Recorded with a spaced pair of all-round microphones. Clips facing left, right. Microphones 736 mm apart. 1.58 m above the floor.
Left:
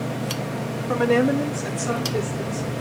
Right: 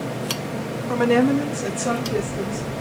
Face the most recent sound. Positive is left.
turn(degrees=-80)